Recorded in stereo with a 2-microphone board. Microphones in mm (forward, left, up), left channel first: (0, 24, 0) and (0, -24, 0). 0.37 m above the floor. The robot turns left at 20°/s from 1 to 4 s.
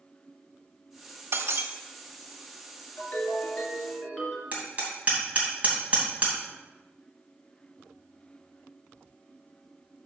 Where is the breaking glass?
65° right (ahead or behind), 1.0 m; by 1.7 s 70° right (ahead or behind), 1.0 m.